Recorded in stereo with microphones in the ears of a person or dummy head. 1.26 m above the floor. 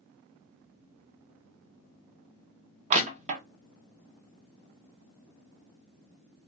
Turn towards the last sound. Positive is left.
turn(degrees=-40)  # may be behind; listen again after turning